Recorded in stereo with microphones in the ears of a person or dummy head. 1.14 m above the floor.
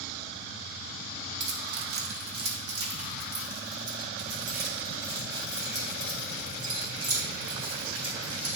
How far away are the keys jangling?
About 1.4 m.